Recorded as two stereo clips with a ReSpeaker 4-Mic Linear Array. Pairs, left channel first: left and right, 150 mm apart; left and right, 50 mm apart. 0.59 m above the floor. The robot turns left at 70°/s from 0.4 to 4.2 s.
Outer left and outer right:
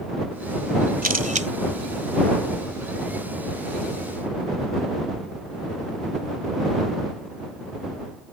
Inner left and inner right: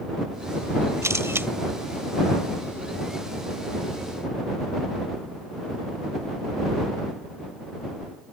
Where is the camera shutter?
100° right; by 1.5 s 130° right.